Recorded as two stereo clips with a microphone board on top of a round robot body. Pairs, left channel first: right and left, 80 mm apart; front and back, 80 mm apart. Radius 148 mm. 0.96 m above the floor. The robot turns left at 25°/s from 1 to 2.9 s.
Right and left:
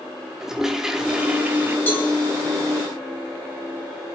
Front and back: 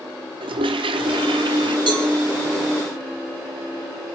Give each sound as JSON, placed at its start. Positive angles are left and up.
{"t": 0.4, "sound": "a toilet flushing", "azimuth_deg": 170, "distance_m": 0.9}
{"t": 1.9, "sound": "a cowbell", "azimuth_deg": -160, "distance_m": 4.0}